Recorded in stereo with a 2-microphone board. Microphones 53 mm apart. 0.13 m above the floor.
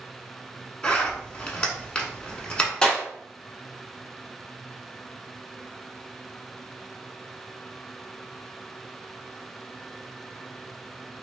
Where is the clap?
15° left (ahead or behind), 0.9 m.